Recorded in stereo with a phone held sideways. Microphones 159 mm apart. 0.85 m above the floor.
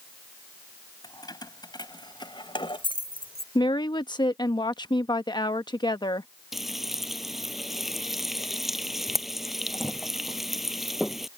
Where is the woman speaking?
30° left (ahead or behind).